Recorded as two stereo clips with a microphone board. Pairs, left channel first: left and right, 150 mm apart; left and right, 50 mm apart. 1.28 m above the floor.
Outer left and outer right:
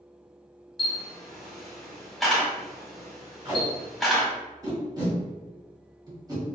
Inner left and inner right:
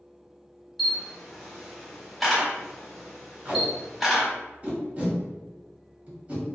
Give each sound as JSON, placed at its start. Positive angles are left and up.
{"t": 0.8, "sound": "a camera shutter", "side_deg": 0, "distance_m": 1.1}
{"t": 3.5, "sound": "tape being pulled", "side_deg": -30, "distance_m": 1.4}